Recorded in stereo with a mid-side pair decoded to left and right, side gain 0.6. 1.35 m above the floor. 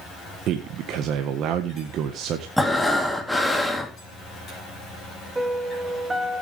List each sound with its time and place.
0.5 s a man speaking: 60° right, 1.5 m
2.6 s breathing: straight ahead, 3 m
5.3 s a piano: 20° right, 2 m